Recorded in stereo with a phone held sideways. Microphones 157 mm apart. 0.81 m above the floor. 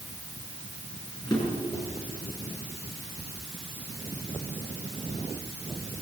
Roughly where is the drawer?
Left.